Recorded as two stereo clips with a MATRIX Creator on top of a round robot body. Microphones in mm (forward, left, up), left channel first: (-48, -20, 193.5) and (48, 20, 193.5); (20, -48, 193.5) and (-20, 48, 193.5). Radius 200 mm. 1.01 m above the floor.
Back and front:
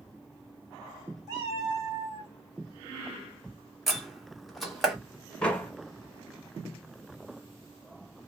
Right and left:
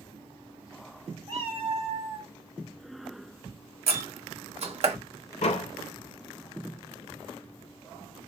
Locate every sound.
1.3 s a cat meowing: 85° left, 1.4 m; by 2.3 s 100° left, 2.5 m
3.9 s a door slam: 115° left, 1.5 m
5.4 s a door slam: 75° right, 0.8 m